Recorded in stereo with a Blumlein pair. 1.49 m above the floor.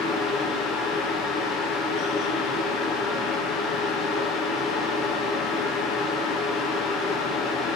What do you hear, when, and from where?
0.0 s a fan: 30° left, 1.2 m